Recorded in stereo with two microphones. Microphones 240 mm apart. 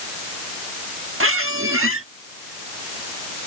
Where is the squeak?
60° right (ahead or behind).